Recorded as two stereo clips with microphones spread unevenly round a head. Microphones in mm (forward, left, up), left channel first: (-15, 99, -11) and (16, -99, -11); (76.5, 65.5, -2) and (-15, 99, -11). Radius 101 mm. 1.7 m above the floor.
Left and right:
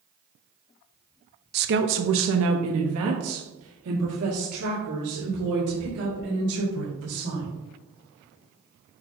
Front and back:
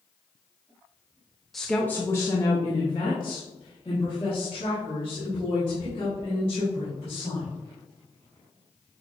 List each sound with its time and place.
1.5 s a woman speaking: 105° right, 0.6 m; by 7.5 s 70° right, 3.5 m